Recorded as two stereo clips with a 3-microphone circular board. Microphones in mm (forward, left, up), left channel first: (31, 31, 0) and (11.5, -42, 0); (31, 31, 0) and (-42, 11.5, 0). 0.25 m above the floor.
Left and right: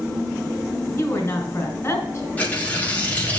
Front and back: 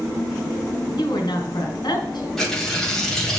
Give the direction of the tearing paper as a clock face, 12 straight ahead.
9 o'clock.